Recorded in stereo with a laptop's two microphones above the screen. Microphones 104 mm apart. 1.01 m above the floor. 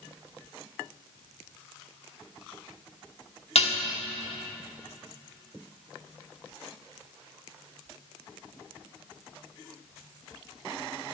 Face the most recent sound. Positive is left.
turn(degrees=70)  # may be behind; listen again after turning